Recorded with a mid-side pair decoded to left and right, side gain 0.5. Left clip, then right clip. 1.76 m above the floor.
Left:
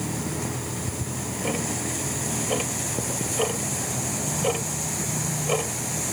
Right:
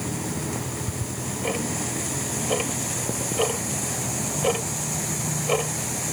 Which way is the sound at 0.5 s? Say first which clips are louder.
Right 1 dB; 10° right.